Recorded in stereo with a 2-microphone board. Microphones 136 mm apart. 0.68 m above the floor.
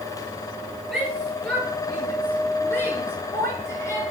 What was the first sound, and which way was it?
A shout, centre (ahead or behind).